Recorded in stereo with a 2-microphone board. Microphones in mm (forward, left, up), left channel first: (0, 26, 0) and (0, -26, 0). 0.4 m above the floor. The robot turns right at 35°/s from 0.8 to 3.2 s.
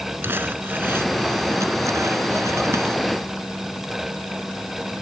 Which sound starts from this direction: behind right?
Crumpling, at 0.2 s.